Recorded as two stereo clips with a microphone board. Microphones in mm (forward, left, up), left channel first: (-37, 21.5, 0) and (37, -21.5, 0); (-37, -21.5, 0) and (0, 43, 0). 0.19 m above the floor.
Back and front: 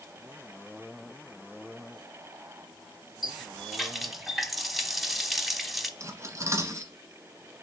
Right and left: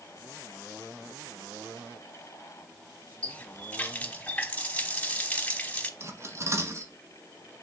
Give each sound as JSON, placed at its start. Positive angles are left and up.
{"t": 3.2, "sound": "a running tap", "azimuth_deg": -120, "distance_m": 1.0}
{"t": 6.0, "sound": "cutlery clinking", "azimuth_deg": 20, "distance_m": 1.4}